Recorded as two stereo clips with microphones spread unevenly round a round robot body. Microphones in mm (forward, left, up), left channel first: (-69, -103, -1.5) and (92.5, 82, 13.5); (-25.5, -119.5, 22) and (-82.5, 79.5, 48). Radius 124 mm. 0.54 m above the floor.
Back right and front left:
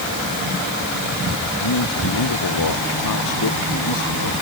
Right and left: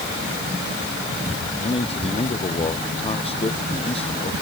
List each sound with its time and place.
1.6 s a man speaking: 135° right